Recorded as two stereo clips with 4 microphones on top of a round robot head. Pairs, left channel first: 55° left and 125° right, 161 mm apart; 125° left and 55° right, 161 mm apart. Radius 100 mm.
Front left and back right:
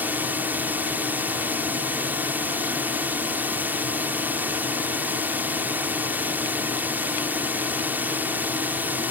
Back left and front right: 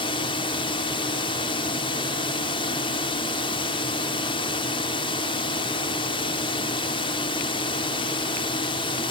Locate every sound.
0.0 s a drone: 165° left